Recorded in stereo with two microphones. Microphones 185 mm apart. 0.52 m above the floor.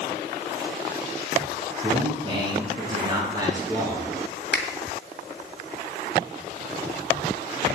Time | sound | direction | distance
1.8 | a man speaking | 30° right (ahead or behind) | 5.5 m
4.5 | a finger snap | 70° left (ahead or behind) | 2 m